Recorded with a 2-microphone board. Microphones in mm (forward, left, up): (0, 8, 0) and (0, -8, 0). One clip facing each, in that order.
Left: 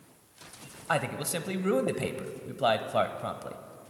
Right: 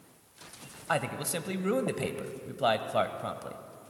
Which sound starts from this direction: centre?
A man speaking, at 0.9 s.